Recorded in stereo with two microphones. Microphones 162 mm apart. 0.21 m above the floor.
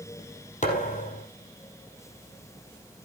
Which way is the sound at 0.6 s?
50° left (ahead or behind).